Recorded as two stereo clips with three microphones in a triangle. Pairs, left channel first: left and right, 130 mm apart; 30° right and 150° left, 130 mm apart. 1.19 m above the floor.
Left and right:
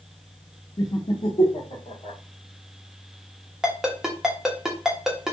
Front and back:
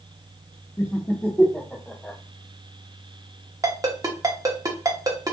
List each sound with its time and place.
0.8 s laughter: 30° left, 0.5 m; by 2.2 s 55° left, 1.5 m
3.6 s a ringtone: 175° right, 0.8 m